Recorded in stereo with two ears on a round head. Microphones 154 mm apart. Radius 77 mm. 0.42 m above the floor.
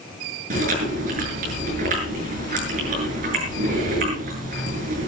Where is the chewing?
50° right (ahead or behind), 7 m.